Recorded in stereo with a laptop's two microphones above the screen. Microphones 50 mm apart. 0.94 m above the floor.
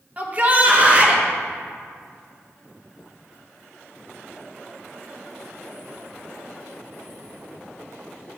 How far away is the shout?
About 1.0 m.